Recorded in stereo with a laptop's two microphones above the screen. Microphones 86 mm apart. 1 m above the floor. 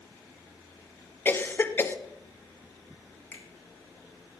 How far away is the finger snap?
About 4 m.